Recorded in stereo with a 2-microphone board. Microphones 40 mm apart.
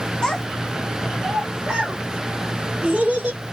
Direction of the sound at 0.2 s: 20° left (ahead or behind).